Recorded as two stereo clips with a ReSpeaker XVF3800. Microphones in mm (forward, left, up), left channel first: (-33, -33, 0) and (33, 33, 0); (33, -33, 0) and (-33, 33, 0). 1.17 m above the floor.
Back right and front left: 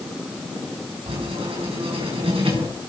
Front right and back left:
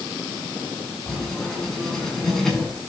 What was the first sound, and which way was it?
Writing, 40° left.